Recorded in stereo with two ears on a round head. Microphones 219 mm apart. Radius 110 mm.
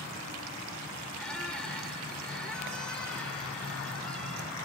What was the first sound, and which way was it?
A squeak, 5° left (ahead or behind).